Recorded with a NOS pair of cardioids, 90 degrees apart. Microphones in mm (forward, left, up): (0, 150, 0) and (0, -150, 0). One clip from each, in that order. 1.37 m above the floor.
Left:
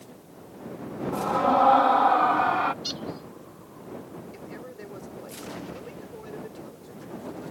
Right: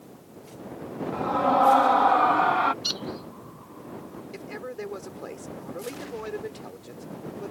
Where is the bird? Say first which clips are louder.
Right 3 dB; 35° right.